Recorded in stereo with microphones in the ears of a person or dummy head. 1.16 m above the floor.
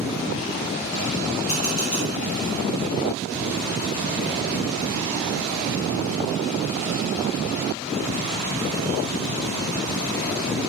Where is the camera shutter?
45° left (ahead or behind), 1.3 m.